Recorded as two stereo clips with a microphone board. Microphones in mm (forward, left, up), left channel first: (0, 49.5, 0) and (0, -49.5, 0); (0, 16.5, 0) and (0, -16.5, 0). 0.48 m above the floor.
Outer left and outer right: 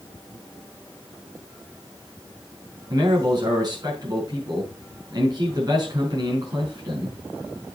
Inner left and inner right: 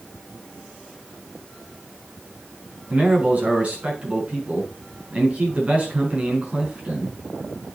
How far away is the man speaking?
About 5.5 m.